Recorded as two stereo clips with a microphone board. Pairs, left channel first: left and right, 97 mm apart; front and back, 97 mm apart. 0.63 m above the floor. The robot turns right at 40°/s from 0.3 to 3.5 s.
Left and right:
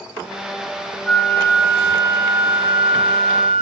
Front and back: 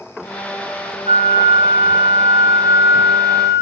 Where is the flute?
175° left, 2 m; by 3.6 s 85° right, 2 m.